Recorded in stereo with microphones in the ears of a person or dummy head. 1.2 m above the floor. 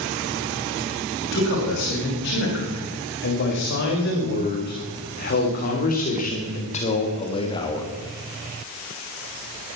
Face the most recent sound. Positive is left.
turn(degrees=10)  # may be behind; listen again after turning